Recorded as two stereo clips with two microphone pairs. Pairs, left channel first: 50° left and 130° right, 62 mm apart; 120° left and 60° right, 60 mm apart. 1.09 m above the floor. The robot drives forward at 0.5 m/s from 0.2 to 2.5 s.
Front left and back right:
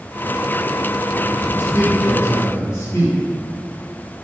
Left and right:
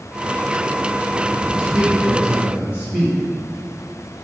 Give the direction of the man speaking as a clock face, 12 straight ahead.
12 o'clock.